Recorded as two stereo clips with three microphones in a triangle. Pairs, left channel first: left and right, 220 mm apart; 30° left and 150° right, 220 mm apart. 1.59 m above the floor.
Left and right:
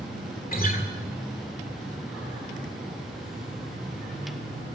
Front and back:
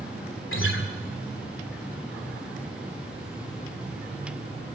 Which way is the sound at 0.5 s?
45° left.